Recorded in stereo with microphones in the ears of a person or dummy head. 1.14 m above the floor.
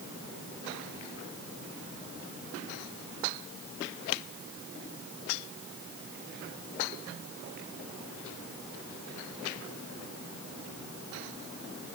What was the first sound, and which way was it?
Only background noise.